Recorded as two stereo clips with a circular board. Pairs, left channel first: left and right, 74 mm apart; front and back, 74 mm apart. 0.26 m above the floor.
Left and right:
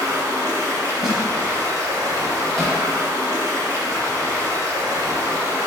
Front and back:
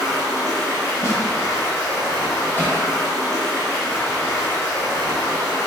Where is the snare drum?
5° right, 1.2 m.